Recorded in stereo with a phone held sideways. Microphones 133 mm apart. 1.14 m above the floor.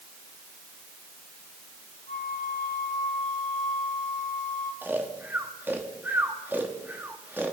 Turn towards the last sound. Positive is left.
turn(degrees=-15)  # may be behind; listen again after turning